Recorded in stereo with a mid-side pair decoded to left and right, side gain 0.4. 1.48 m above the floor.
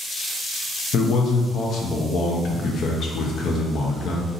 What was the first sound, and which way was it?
A man speaking, 70° left.